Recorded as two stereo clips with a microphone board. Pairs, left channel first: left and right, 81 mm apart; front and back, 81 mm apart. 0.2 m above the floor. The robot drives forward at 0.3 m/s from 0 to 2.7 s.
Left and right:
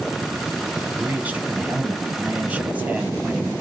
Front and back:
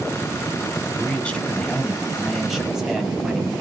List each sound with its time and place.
0.9 s a man speaking: 40° right, 1.3 m; by 3.5 s 105° right, 1.2 m